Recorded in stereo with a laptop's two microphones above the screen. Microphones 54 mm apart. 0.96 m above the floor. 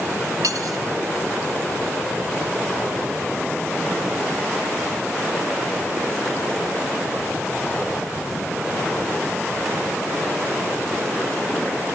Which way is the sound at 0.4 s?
85° right.